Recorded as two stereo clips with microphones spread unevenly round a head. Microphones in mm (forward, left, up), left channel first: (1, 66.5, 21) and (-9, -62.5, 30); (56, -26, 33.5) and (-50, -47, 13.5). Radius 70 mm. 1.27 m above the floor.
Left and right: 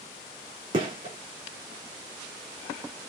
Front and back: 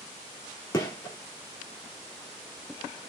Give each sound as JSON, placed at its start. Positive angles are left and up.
{"t": 0.7, "sound": "a gunshot", "azimuth_deg": -40, "distance_m": 2.0}